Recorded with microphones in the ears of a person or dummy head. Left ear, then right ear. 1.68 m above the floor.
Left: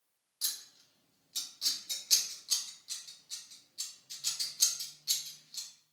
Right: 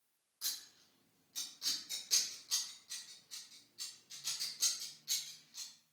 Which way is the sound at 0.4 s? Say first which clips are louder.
Left 4 dB; 30° left (ahead or behind).